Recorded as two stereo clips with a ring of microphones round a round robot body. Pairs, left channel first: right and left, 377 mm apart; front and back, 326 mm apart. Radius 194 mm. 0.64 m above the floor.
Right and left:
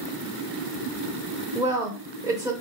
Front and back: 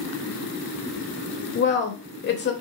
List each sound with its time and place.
1.6 s a woman speaking: 15° left, 0.6 m